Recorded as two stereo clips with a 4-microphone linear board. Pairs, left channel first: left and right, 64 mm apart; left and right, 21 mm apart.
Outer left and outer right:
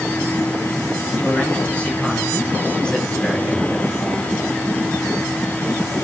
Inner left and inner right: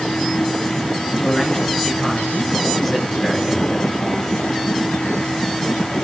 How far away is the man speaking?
About 5.5 m.